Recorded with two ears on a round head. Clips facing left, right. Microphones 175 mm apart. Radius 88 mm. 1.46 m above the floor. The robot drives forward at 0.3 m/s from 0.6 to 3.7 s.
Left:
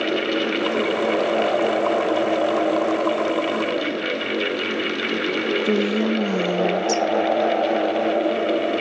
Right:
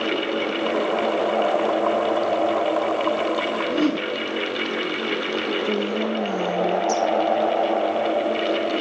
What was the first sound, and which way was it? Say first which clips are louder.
A whoosh: right 2 dB; 80° right.